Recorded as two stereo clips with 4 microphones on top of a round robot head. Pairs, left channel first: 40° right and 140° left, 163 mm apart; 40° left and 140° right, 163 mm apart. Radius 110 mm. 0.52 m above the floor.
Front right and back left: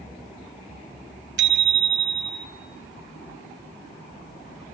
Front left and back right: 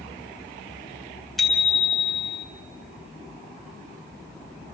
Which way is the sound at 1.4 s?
130° left.